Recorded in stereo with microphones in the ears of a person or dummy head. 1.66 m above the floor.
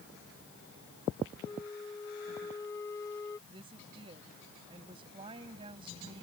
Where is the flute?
20° left (ahead or behind).